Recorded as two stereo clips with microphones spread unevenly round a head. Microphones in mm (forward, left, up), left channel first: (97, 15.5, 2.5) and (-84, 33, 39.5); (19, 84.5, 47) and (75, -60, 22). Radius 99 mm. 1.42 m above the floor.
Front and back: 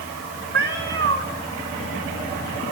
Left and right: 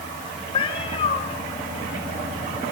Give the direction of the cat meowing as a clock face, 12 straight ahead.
6 o'clock.